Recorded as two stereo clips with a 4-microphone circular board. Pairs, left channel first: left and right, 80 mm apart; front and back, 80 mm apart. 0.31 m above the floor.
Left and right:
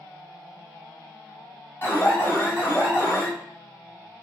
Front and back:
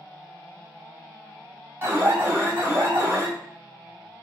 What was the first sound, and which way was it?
An alarm, 140° left.